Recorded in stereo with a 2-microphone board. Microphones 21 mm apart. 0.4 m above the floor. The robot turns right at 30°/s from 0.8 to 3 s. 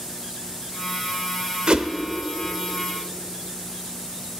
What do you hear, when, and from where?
1.7 s a whoosh: 45° right (ahead or behind), 0.7 m